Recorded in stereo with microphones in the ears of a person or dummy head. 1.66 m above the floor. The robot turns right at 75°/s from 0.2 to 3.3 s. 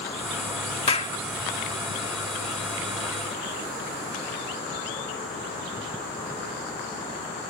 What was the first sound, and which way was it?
A clap, 35° left (ahead or behind).